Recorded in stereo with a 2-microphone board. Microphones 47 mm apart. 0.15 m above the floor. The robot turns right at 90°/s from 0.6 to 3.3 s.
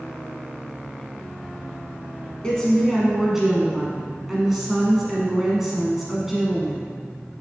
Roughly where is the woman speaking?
Centre.